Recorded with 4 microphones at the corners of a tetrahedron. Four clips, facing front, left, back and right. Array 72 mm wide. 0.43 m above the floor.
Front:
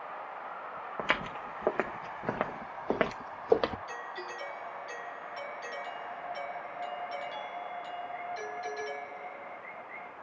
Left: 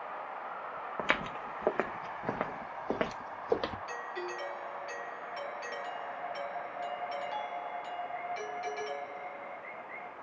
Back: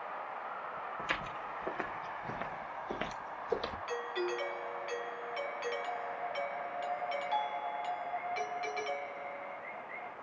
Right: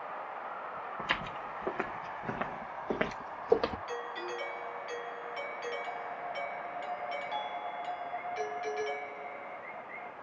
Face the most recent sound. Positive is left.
turn(degrees=160)